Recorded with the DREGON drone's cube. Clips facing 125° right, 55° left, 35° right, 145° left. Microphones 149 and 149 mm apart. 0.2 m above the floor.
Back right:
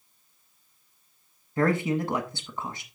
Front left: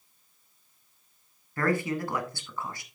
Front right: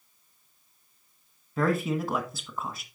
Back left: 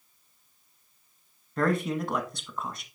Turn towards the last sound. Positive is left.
turn(degrees=-115)